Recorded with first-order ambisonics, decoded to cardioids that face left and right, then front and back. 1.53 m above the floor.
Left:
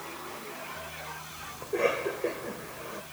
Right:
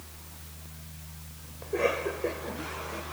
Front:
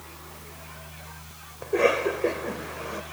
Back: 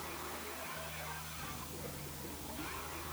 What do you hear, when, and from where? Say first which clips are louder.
1.6 s a cough: even, front 25 dB; straight ahead